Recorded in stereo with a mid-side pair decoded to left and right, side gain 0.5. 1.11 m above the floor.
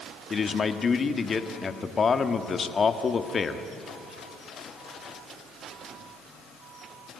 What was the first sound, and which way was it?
A man speaking, 40° left.